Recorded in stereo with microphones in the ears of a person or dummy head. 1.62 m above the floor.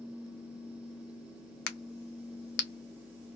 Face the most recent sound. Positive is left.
turn(degrees=60)  # may be behind; listen again after turning